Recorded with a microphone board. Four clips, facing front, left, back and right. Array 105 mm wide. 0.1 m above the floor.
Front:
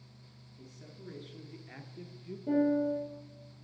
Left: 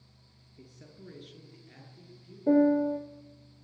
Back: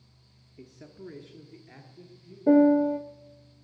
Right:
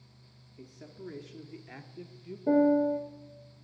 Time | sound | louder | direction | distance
0.6 | a man speaking | right 5 dB, back 7 dB | 175° right | 1.6 m
2.5 | a piano | left 1 dB, back 9 dB | 175° left | 0.9 m